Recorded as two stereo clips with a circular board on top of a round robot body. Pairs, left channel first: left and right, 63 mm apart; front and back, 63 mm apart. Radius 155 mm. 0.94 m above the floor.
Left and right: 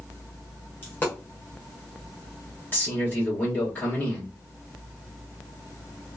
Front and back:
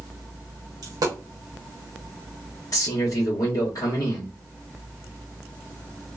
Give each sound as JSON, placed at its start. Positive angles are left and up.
{"t": 0.8, "sound": "a dropped coin", "azimuth_deg": 155, "distance_m": 0.6}
{"t": 2.7, "sound": "a man speaking", "azimuth_deg": 25, "distance_m": 1.8}